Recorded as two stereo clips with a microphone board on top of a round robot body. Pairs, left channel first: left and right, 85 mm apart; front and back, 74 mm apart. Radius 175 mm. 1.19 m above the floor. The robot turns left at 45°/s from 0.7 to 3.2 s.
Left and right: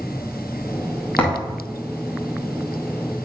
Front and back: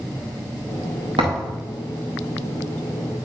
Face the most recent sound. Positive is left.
turn(degrees=70)